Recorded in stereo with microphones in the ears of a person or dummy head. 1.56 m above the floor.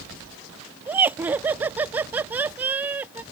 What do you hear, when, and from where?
0.9 s laughter: 10° right (ahead or behind)